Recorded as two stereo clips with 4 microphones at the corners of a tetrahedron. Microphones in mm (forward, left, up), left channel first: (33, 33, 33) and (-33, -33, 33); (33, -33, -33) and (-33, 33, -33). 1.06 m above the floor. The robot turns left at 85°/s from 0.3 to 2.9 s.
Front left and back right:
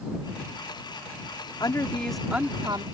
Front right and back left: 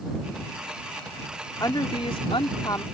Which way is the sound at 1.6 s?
5° left.